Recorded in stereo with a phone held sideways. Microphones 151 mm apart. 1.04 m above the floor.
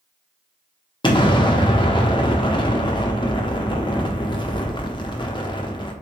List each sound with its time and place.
1.0 s an explosion: 35° left (ahead or behind), 0.6 m